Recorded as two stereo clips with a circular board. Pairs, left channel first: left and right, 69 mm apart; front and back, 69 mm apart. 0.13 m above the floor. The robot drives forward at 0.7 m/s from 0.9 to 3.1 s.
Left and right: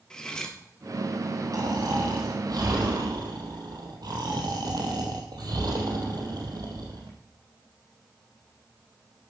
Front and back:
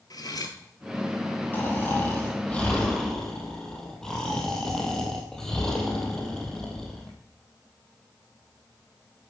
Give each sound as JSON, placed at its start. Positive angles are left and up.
{"t": 0.1, "sound": "cutlery clinking", "azimuth_deg": 10, "distance_m": 1.8}
{"t": 1.5, "sound": "snoring", "azimuth_deg": -60, "distance_m": 3.0}